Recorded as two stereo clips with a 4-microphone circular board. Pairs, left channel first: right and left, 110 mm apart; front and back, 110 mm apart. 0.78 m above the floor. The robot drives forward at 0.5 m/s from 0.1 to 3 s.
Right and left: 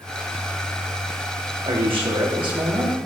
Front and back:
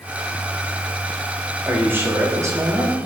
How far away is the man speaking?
About 1.6 m.